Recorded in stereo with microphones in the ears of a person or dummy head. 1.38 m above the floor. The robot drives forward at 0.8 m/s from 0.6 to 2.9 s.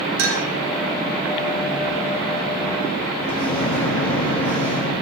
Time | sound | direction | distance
0.2 | a clink | 75° right (ahead or behind) | 2.5 m
3.2 | a microwave | 10° left (ahead or behind) | 2.5 m